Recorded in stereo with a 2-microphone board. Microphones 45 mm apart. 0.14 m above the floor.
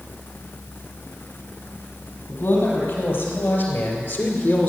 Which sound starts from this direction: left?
A man speaking, at 2.3 s.